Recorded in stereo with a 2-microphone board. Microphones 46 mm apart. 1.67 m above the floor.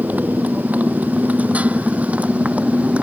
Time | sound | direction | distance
0.0 | a motorcycle | 40° right (ahead or behind) | ?